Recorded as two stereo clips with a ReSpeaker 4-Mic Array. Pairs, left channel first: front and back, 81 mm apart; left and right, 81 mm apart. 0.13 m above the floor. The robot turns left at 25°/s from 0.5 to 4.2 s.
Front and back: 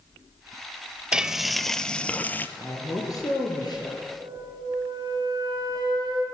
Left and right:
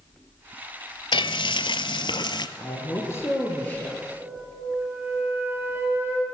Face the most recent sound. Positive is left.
turn(degrees=-150)